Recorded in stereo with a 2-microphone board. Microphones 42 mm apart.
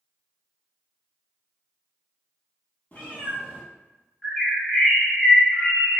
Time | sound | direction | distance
2.9 | a cat meowing | 35° left (ahead or behind) | 1.5 m
4.2 | a bird | 10° left (ahead or behind) | 1.9 m